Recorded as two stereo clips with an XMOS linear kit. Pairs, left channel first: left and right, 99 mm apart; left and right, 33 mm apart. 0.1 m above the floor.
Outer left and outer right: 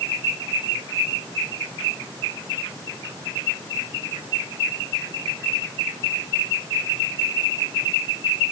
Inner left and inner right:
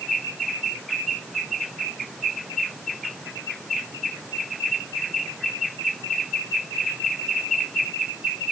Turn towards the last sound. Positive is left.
No sound to turn to.